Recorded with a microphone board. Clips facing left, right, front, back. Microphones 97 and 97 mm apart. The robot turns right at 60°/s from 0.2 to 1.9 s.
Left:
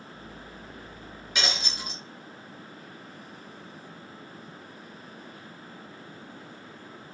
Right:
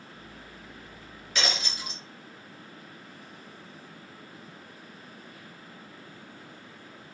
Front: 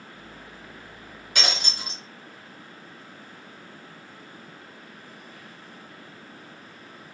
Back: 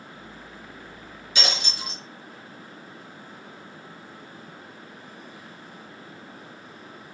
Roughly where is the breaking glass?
Ahead.